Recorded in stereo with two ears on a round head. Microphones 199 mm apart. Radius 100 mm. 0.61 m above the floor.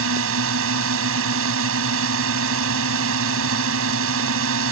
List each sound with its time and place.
0.0 s a drone: 70° right (ahead or behind)